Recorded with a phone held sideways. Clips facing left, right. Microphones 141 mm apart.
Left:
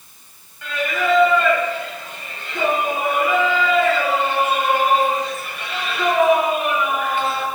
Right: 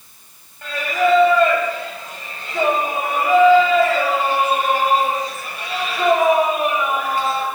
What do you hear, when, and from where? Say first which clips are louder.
0.6 s singing: right 3 dB; 45° right (ahead or behind), 2 m